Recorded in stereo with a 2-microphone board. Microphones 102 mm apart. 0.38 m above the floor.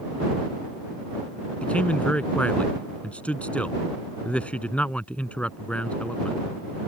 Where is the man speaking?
10° left (ahead or behind).